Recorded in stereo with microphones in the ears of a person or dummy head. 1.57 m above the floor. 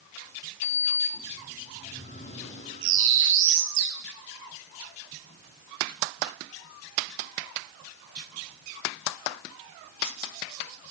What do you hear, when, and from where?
0.6 s a sliding door: 35° left (ahead or behind), 3.5 m
2.8 s a bird: 75° right (ahead or behind), 3 m